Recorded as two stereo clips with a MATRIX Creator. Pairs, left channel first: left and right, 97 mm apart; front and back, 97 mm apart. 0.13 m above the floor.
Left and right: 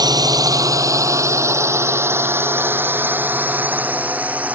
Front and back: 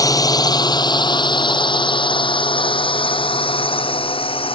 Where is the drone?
45° right; by 4.6 s 15° right.